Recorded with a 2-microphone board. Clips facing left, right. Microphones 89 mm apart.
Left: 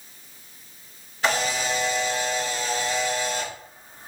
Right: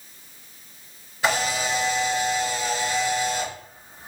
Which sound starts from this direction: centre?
A camera shutter, at 1.2 s.